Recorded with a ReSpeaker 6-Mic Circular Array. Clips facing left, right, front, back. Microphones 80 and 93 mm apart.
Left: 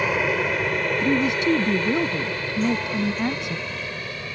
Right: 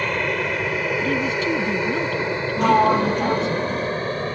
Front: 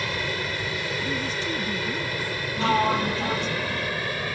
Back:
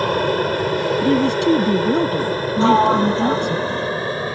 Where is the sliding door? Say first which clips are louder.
Right 8 dB, back 8 dB; 120° right.